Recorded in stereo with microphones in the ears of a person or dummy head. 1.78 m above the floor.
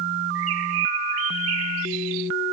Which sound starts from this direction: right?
A bird, at 0.3 s.